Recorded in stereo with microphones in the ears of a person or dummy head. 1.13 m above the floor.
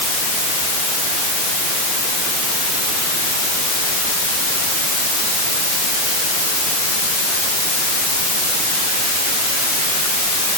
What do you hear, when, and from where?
Only background noise.